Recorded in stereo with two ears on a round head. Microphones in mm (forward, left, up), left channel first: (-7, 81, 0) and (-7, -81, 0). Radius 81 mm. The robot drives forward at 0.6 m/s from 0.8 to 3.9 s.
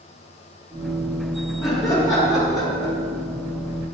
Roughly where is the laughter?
Centre.